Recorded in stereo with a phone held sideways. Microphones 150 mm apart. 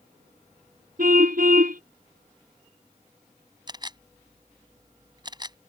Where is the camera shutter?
30° right (ahead or behind).